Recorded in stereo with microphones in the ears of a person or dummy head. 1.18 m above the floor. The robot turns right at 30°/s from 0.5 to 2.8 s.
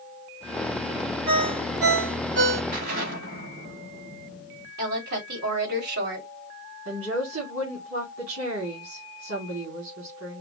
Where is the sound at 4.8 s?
70° right (ahead or behind), 2.5 m.